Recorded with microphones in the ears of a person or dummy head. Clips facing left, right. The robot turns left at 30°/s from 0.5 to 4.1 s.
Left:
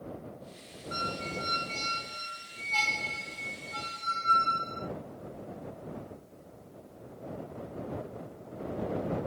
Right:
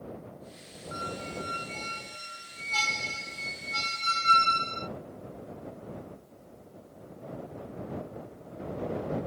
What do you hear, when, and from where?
0.9 s a squeak: 45° left; by 4.9 s 50° right